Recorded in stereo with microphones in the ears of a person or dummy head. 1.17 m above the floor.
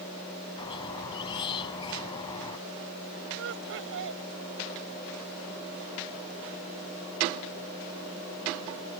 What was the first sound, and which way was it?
A squeak, 20° left (ahead or behind).